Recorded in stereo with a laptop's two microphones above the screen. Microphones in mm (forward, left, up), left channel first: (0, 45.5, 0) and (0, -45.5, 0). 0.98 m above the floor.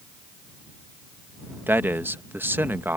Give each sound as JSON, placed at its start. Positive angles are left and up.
{"t": 1.7, "sound": "a man speaking", "side_deg": -20}